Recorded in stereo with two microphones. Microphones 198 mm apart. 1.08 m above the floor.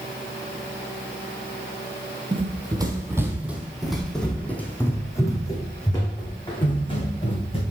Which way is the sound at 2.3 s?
30° right (ahead or behind).